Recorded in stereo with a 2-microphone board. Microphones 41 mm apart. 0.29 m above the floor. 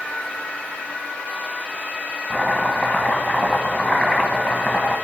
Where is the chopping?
35° left (ahead or behind), 1.1 m.